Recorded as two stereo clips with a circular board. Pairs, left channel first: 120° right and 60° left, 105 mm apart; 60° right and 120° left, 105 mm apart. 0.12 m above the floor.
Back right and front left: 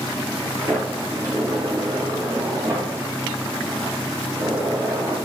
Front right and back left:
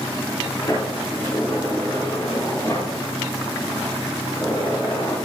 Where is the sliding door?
Straight ahead, 6.5 m.